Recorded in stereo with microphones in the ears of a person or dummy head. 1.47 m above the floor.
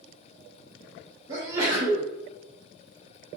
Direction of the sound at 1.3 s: 15° right (ahead or behind).